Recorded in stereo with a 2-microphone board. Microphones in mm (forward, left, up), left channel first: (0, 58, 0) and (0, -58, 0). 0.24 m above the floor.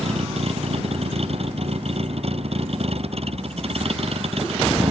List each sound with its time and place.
0.0 s a vehicle: 60° right (ahead or behind)